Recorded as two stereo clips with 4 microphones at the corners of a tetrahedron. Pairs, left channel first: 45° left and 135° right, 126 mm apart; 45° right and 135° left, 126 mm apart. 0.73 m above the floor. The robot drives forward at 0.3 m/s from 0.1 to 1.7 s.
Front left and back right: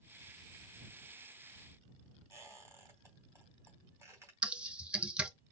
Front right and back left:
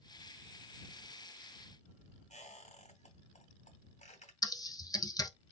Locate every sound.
2.3 s a squeak: 65° right, 2.5 m
4.4 s typing on a keyboard: 60° right, 0.6 m